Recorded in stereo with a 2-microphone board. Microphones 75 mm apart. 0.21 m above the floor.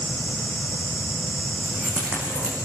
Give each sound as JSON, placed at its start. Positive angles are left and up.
{"t": 1.6, "sound": "keys jangling", "side_deg": -20, "distance_m": 8.5}